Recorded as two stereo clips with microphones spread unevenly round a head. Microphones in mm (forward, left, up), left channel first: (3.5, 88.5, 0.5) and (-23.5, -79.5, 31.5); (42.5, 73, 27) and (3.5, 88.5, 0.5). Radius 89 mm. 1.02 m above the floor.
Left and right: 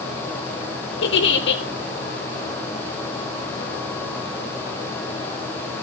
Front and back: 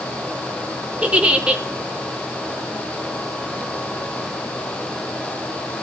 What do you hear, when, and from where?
1.0 s a giggle: 100° left, 4 m